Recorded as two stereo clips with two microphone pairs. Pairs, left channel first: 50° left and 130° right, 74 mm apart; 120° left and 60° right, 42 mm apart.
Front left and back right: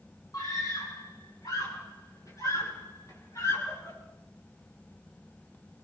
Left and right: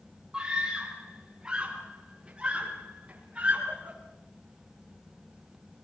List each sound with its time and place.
0.3 s a scream: 15° left, 8.5 m; by 4.0 s straight ahead, 11 m